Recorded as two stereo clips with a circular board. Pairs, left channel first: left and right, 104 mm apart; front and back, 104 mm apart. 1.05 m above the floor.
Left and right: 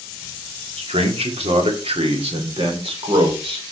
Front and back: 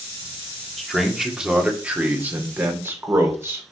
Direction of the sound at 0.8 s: 90° right.